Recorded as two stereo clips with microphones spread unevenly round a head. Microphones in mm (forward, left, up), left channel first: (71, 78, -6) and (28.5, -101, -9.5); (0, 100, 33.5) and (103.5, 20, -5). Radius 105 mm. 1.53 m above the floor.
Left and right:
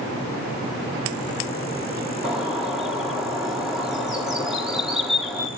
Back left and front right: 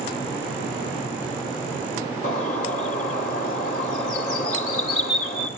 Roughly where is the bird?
Behind.